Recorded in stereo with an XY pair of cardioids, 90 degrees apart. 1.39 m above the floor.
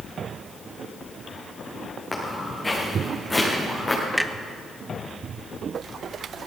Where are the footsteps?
35° left, 6.5 m; by 4.0 s 25° left, 6.5 m.